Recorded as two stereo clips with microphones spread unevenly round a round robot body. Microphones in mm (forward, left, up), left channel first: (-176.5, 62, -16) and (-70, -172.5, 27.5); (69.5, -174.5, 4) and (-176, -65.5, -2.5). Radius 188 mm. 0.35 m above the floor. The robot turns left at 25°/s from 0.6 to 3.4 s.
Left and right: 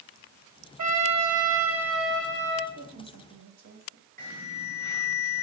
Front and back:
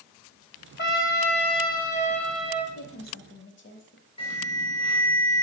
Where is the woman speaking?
50° right, 1.6 m; by 4.1 s 65° right, 1.6 m.